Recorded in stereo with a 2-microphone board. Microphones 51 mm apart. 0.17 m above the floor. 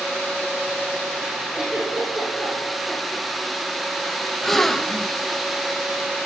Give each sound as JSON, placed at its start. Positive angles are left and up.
{"t": 1.5, "sound": "a giggle", "side_deg": -15, "distance_m": 6.5}
{"t": 4.4, "sound": "a gasp", "side_deg": 5, "distance_m": 0.5}